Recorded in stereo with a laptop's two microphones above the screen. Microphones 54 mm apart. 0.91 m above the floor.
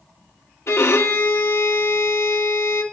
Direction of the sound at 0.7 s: 65° left (ahead or behind).